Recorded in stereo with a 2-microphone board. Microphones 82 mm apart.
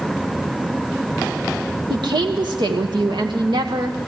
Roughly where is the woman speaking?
Right.